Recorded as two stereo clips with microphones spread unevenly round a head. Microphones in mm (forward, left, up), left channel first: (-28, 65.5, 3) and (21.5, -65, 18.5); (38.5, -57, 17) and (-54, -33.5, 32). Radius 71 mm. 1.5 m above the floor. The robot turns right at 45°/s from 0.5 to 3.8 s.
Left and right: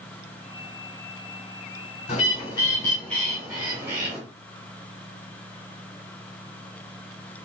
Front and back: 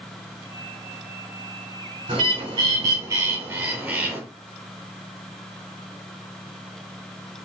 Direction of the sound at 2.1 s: 150° left.